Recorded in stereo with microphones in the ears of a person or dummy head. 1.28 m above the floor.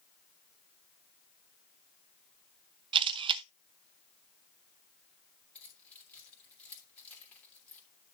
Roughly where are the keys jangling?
Centre.